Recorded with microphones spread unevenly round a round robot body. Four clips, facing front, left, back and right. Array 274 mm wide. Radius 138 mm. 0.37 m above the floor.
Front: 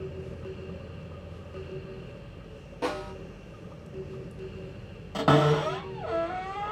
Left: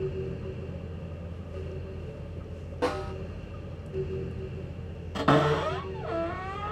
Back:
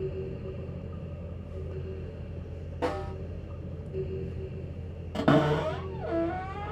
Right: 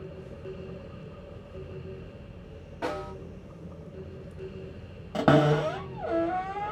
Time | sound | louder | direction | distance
2.8 | a snare drum | left 3 dB, even | 120° left | 1.2 m
5.1 | a cupboard door | right 2 dB, front 1 dB | 95° right | 1.4 m